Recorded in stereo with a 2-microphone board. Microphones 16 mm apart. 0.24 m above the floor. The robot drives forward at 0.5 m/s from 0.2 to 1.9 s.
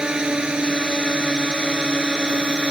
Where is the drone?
60° right (ahead or behind); by 2.7 s 70° right (ahead or behind).